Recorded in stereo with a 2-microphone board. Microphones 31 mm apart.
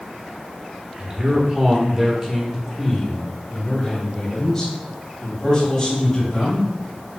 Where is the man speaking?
30° right (ahead or behind), 1.5 m; by 6.7 s 20° left (ahead or behind), 3.5 m.